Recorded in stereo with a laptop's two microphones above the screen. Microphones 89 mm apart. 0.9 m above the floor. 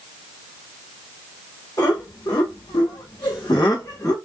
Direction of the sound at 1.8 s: 40° left (ahead or behind).